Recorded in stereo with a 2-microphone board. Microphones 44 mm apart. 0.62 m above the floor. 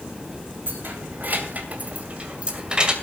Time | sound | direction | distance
0.7 | keys jangling | 55° right (ahead or behind) | 3 m